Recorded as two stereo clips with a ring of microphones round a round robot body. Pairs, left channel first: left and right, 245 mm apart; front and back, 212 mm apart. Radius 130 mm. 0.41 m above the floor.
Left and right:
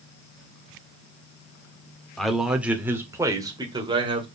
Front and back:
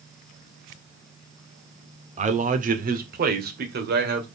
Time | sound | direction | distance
2.2 | a man speaking | 175° left | 1.5 m